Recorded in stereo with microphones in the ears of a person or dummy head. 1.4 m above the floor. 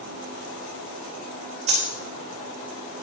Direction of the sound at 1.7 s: 40° right (ahead or behind).